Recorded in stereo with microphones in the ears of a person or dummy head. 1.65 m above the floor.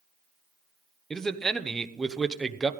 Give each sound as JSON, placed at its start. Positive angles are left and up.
{"t": 1.1, "sound": "a man speaking", "side_deg": 0, "distance_m": 0.9}